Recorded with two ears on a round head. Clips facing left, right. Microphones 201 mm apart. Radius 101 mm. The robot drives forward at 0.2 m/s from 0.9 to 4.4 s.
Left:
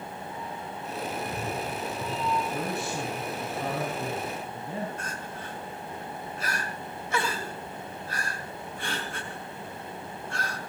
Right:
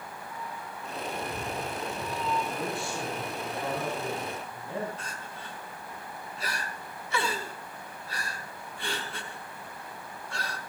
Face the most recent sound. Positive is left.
turn(degrees=45)  # may be behind; listen again after turning